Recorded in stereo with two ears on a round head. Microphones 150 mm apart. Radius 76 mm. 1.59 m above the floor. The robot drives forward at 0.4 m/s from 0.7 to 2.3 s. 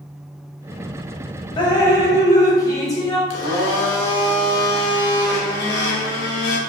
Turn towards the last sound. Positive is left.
turn(degrees=70)  # may be behind; listen again after turning